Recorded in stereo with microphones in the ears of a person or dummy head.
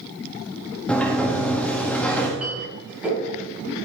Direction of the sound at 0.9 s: 5° left (ahead or behind).